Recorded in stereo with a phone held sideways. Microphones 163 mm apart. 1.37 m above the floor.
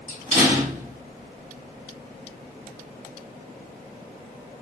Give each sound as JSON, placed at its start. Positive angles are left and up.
{"t": 0.1, "sound": "a door slam", "side_deg": -45, "distance_m": 1.7}